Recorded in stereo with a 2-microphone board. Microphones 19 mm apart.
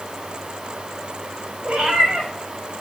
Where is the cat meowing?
80° right, 5 m.